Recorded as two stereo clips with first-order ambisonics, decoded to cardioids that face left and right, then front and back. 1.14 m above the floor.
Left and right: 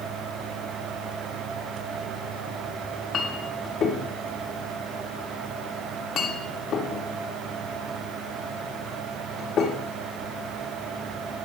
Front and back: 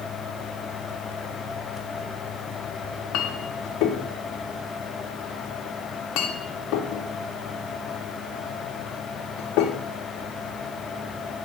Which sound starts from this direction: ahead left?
A clink, at 2.8 s.